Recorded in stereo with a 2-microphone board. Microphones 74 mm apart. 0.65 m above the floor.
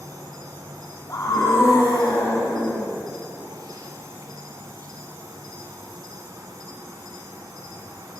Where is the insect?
60° right (ahead or behind), 0.9 m.